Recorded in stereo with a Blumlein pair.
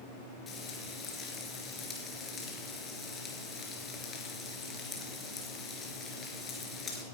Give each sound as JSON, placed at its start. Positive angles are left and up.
{"t": 0.5, "sound": "frying", "azimuth_deg": 20, "distance_m": 3.5}